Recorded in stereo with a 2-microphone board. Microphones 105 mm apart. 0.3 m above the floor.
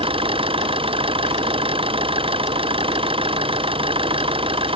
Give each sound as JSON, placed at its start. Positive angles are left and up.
{"t": 0.0, "sound": "an engine running", "side_deg": -60}